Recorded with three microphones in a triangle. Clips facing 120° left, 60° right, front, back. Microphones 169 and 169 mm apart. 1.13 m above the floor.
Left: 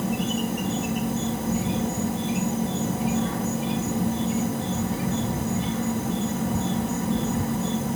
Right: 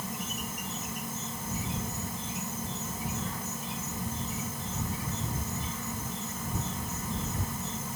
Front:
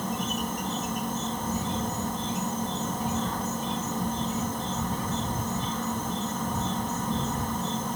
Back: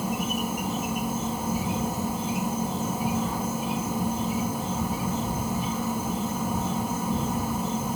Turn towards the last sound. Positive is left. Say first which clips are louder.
# left 13 dB, back 2 dB
turn(degrees=100)